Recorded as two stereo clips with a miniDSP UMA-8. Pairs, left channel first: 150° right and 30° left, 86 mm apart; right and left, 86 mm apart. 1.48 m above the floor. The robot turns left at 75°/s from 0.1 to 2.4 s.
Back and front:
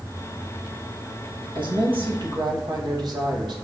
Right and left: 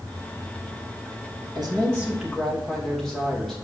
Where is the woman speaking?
60° left, 2.5 m; by 3.6 s 5° right, 2.5 m.